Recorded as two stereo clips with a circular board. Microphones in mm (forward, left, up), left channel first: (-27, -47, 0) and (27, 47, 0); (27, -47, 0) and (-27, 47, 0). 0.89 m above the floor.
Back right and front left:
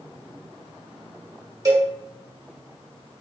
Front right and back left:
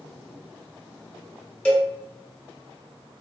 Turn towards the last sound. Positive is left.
turn(degrees=15)